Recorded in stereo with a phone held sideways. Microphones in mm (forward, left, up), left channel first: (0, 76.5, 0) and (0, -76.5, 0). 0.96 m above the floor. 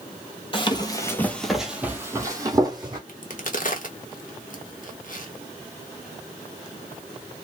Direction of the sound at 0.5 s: 35° left (ahead or behind).